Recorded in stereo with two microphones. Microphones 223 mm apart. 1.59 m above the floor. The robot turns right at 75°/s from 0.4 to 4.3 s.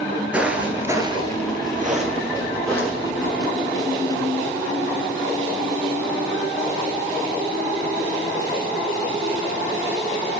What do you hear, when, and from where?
0.3 s footsteps: 5° right (ahead or behind), 1.6 m; by 3.3 s 45° left (ahead or behind), 4 m